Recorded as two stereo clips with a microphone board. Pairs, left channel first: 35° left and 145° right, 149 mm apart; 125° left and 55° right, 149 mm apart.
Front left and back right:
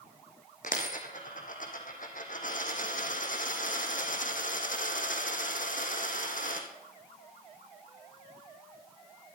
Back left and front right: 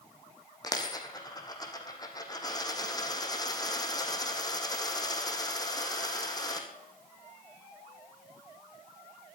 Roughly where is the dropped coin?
Ahead left.